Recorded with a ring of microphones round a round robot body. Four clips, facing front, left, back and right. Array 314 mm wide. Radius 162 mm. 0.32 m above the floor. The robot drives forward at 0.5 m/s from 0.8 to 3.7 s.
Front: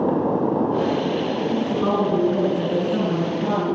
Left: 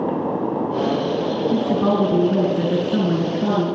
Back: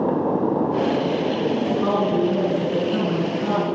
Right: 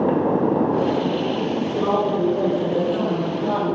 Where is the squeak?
I don't hear a squeak.